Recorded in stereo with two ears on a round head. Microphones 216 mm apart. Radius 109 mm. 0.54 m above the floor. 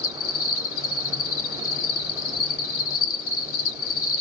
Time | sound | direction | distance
0.0 | an insect | 60° left (ahead or behind) | 1.4 m